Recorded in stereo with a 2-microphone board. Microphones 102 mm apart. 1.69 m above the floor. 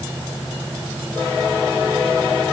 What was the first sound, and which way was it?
Only background noise.